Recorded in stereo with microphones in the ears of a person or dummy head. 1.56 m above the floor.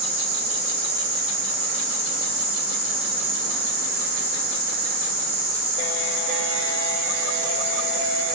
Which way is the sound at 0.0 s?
65° right (ahead or behind).